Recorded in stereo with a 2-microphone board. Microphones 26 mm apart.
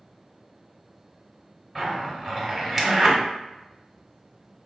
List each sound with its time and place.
1.8 s a zipper: 5° right (ahead or behind), 1.1 m